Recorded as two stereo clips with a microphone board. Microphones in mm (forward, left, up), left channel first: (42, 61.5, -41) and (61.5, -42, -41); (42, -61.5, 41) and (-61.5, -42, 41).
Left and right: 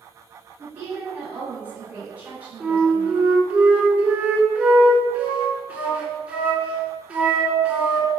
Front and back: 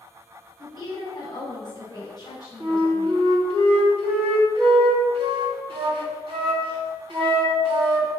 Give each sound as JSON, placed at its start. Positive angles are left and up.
{"t": 0.6, "sound": "a woman speaking", "azimuth_deg": -15, "distance_m": 1.4}
{"t": 2.6, "sound": "a flute", "azimuth_deg": -155, "distance_m": 0.8}